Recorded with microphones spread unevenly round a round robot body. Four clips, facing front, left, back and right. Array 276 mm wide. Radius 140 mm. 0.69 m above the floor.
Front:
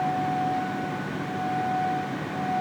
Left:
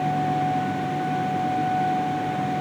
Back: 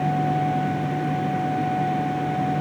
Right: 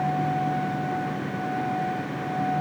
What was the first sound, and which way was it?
Only background noise.